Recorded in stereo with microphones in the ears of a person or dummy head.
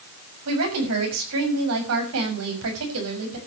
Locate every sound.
0.5 s a woman speaking: 90° right, 6.5 m